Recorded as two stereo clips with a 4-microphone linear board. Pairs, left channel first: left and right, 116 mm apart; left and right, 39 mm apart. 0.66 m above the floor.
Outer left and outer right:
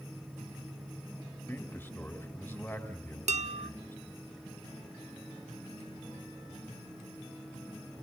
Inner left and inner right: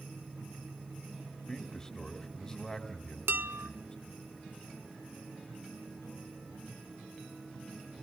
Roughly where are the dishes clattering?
Right.